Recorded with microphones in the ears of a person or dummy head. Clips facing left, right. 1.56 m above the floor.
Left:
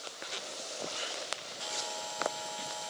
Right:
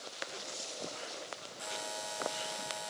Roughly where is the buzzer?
Centre.